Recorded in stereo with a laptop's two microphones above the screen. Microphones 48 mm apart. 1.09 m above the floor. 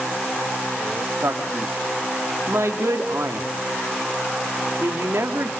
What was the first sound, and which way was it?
A man speaking, 80° right.